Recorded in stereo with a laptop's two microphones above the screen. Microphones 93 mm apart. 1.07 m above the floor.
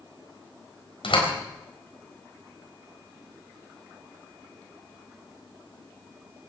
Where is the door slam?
85° left, 4 m.